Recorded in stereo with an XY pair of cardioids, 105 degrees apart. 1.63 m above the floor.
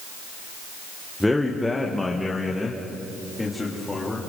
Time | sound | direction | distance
1.2 | a man speaking | 10° left | 1.4 m